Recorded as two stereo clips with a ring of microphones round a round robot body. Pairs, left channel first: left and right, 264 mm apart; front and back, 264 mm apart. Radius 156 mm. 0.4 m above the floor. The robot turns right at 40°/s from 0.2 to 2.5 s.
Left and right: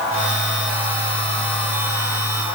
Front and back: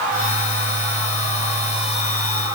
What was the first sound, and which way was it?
Only background noise.